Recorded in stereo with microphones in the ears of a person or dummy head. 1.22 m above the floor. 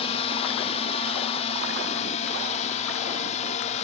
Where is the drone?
35° left (ahead or behind); by 3.8 s 40° left (ahead or behind).